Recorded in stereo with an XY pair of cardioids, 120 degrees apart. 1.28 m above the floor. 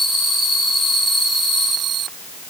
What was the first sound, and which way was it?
Only background noise.